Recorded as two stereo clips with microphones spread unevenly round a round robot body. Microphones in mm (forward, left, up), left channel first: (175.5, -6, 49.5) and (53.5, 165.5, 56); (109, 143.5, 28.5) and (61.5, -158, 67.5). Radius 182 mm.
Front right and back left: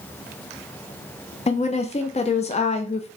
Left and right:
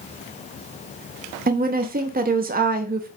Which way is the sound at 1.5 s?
50° right.